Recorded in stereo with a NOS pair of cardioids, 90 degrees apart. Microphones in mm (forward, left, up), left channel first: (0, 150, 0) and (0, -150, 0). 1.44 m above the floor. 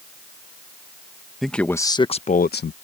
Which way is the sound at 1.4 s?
Straight ahead.